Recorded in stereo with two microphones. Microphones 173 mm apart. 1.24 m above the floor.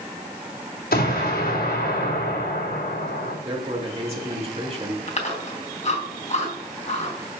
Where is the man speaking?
35° right (ahead or behind), 2.5 m.